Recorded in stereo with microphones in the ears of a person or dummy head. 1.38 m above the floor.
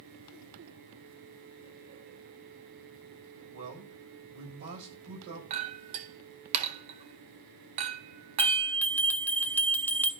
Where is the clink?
35° right (ahead or behind), 0.7 m.